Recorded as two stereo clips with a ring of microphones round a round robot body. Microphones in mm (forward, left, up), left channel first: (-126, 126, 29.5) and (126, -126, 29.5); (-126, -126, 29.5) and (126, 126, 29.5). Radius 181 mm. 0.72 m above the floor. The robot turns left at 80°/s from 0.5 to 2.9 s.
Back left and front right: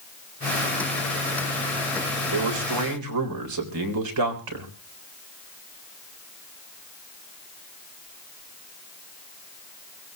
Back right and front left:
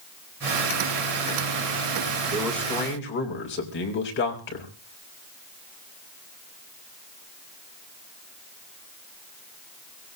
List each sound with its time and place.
2.3 s a man speaking: 30° right, 4 m; by 4.7 s 75° right, 4 m